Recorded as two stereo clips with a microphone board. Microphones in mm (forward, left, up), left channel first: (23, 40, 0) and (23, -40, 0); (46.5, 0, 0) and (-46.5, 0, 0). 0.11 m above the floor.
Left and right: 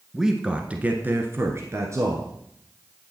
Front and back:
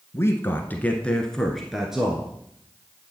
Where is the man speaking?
10° right, 1.2 m; by 2.3 s 105° right, 1.5 m.